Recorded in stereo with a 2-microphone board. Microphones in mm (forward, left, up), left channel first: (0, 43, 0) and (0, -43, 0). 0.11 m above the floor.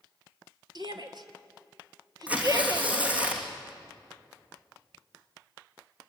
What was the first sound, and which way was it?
A shout, 55° right (ahead or behind).